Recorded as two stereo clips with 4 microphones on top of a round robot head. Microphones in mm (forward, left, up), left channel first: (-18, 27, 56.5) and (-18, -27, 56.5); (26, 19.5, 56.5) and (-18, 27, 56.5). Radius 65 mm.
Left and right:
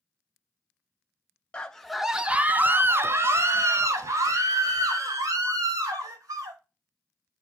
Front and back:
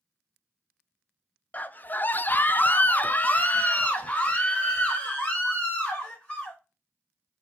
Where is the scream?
25° left, 0.7 m; by 6.6 s 80° right, 2.5 m.